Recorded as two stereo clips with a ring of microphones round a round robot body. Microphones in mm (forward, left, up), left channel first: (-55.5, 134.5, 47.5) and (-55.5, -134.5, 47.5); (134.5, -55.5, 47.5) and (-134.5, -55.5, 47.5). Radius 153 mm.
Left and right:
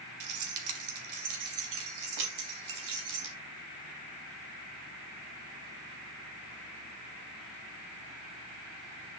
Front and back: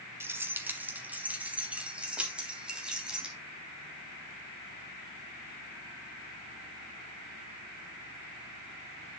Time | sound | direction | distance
0.2 | keys jangling | 100° right | 1.7 m